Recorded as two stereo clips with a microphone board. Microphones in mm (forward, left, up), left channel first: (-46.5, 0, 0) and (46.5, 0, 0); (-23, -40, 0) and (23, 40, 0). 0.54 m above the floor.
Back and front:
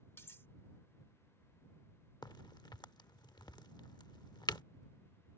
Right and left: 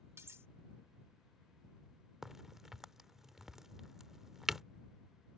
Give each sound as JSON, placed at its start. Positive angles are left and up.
{"t": 0.2, "sound": "cutlery clinking", "azimuth_deg": 115}
{"t": 2.2, "sound": "a crack", "azimuth_deg": 145}